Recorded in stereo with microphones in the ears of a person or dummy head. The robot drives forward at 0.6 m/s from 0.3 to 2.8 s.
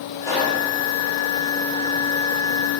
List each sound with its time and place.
0.2 s a pop: 20° left (ahead or behind), 1.0 m; by 0.6 s 15° left (ahead or behind), 1.1 m